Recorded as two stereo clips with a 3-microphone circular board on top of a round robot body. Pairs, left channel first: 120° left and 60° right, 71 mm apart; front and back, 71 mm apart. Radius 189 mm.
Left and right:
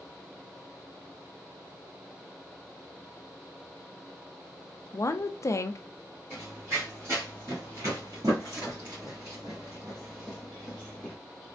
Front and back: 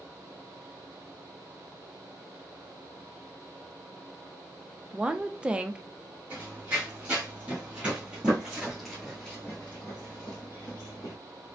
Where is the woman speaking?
110° left, 0.6 m.